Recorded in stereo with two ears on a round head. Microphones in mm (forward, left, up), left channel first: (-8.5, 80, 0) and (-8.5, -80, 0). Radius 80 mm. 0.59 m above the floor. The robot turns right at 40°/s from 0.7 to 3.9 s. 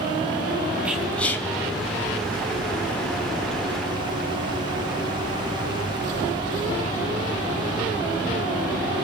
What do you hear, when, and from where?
0.8 s whispering: 5° right (ahead or behind), 2.5 m; by 1.5 s 15° left (ahead or behind), 2.5 m